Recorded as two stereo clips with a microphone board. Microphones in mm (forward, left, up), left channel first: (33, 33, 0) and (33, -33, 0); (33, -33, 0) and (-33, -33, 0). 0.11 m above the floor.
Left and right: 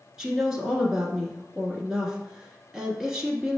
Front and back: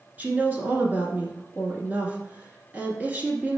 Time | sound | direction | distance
0.2 | a woman speaking | 160° right | 1.1 m